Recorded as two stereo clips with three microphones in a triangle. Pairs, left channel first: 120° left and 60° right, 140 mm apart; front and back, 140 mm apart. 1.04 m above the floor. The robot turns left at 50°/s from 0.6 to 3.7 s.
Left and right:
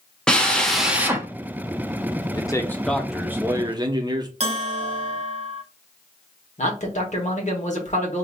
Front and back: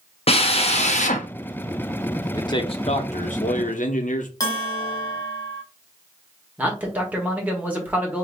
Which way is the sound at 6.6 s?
100° left.